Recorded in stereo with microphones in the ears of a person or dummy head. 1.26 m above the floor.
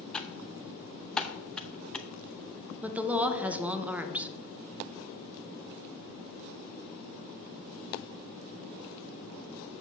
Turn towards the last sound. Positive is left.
turn(degrees=-5)  # may be behind; listen again after turning